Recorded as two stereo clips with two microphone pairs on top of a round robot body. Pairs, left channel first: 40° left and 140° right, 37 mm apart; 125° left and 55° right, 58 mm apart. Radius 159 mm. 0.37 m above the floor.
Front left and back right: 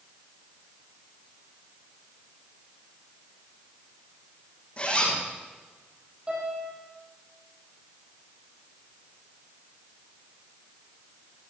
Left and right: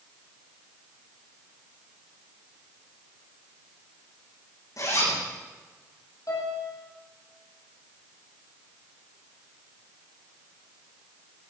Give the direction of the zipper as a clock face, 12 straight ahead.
9 o'clock.